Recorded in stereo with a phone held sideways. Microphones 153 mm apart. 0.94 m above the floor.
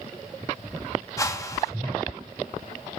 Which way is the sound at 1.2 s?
20° left (ahead or behind).